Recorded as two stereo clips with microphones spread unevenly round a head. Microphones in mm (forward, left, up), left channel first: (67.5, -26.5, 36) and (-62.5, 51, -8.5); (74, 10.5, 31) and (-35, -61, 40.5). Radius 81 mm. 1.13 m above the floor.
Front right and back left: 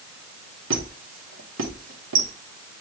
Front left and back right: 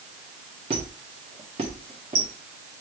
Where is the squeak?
160° left, 1.2 m.